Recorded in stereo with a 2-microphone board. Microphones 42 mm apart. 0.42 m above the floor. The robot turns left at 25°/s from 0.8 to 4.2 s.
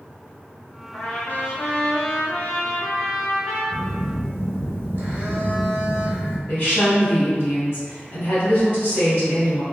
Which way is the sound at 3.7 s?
55° right (ahead or behind).